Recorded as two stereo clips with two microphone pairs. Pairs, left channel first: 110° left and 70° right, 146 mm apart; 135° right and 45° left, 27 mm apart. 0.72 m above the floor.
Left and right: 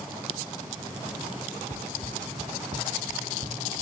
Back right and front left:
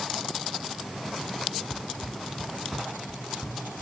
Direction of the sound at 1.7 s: 45° right.